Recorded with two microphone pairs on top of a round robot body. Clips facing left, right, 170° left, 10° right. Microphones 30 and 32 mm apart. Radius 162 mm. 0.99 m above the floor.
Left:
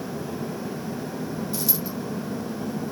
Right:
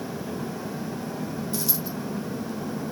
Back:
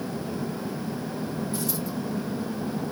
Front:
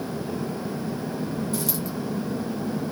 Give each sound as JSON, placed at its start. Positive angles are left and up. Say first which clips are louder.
{"t": 1.5, "sound": "a dropped coin", "louder": "left 1 dB, front 2 dB", "azimuth_deg": 0, "distance_m": 1.6}